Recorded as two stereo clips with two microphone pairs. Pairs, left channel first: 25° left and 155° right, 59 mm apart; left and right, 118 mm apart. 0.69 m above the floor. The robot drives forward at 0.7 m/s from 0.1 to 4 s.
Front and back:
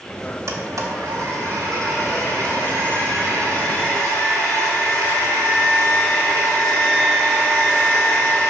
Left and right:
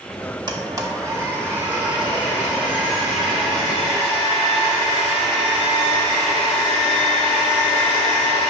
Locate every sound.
0.5 s a blender: 135° right, 0.8 m; by 8.5 s 170° right, 3 m